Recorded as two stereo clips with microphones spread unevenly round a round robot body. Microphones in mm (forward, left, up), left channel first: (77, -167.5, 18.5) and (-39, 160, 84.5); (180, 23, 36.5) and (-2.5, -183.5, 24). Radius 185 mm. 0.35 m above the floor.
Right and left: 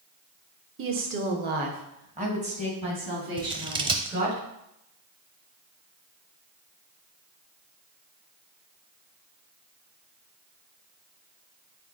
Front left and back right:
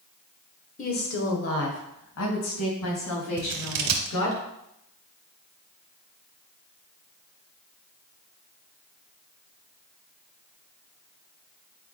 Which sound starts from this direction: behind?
Scissors, at 3.4 s.